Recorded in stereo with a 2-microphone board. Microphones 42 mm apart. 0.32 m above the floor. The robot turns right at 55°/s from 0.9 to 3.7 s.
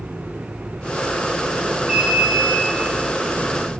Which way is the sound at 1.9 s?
45° right.